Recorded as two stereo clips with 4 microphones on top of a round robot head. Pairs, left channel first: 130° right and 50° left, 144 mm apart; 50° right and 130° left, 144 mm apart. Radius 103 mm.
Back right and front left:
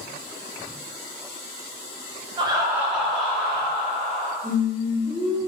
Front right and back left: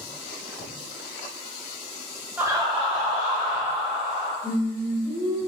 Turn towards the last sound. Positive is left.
turn(degrees=-115)